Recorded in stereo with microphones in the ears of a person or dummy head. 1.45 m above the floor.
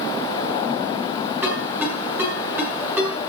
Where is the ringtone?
15° right (ahead or behind), 7.5 m.